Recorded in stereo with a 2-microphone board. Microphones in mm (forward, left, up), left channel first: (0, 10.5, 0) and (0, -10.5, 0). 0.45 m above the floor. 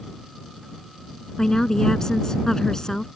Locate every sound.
1.4 s a woman speaking: 30° left (ahead or behind)